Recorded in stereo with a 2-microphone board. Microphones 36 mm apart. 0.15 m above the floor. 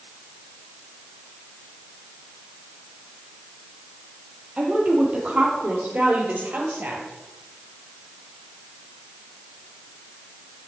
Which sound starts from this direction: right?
A woman speaking, at 4.6 s.